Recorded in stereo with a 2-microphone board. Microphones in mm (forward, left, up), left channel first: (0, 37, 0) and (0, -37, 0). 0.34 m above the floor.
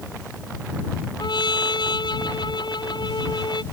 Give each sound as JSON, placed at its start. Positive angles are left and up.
{"t": 1.2, "sound": "a trumpet", "side_deg": 80}